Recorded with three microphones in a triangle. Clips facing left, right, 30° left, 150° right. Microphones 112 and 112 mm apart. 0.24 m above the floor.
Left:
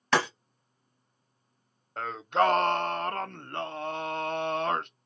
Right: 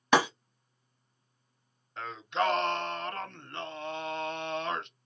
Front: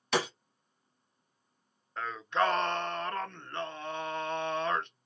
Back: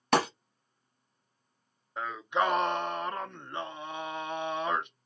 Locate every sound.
0.1 s breaking glass: 165° right, 0.8 m
2.0 s singing: 135° left, 0.5 m